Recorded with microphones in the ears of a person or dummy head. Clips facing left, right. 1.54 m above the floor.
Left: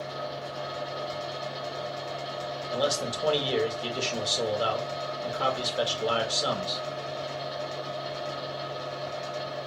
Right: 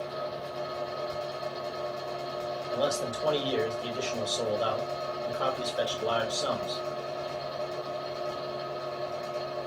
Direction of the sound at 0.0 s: 25° left (ahead or behind).